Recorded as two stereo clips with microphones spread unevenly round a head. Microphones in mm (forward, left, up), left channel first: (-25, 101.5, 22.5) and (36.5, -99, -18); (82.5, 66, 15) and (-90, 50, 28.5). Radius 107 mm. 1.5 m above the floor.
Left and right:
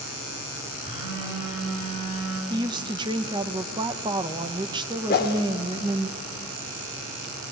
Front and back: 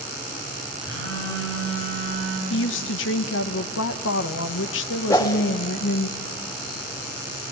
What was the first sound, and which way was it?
A phone buzzing, 140° right.